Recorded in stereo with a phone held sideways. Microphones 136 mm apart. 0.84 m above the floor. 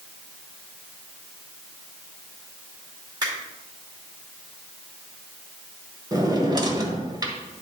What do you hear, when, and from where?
3.2 s a finger snap: 30° right (ahead or behind), 2.5 m
6.1 s a drawer: 30° right (ahead or behind), 1.2 m